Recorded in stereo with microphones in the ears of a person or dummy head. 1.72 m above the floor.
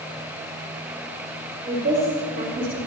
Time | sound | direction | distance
1.6 | a woman speaking | 25° right (ahead or behind) | 6.5 m